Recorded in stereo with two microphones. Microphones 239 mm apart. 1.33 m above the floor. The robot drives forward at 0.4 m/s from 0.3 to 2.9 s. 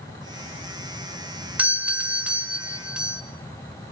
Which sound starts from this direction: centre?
A doorbell, at 1.6 s.